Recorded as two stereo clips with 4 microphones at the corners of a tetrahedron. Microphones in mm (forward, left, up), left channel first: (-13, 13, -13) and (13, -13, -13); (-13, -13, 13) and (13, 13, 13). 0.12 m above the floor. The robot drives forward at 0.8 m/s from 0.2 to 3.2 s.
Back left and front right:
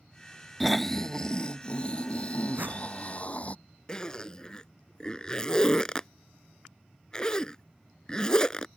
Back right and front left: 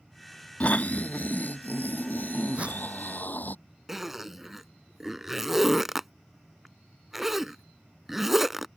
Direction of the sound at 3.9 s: 115° left.